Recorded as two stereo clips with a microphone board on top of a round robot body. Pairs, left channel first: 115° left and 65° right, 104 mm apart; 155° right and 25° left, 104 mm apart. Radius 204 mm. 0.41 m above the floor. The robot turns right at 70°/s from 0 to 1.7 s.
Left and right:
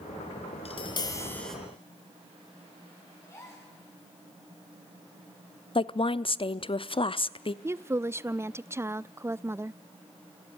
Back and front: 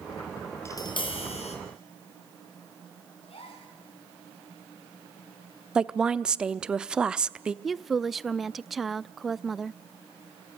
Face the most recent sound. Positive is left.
turn(degrees=-65)